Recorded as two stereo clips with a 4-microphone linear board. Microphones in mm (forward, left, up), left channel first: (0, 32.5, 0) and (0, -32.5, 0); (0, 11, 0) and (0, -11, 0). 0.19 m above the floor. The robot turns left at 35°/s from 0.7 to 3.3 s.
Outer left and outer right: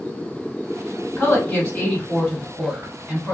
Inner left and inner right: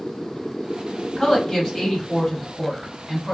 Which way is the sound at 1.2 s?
35° left (ahead or behind).